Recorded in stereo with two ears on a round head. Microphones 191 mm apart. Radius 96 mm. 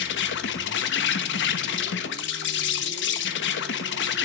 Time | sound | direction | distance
0.0 | an insect | 60° left (ahead or behind) | 1.2 m